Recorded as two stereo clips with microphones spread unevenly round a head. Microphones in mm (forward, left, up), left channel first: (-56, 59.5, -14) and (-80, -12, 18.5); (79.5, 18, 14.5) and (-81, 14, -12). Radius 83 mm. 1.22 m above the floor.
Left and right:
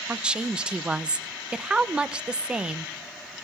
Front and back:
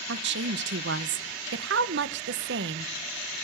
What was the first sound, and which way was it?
A woman speaking, 170° left.